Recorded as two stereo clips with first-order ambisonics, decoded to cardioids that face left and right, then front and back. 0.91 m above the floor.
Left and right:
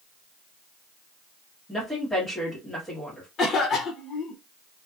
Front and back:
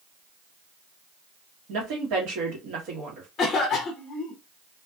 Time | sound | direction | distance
1.7 | a woman speaking | 170° left | 1.2 m
3.4 | a cough | 45° left | 0.6 m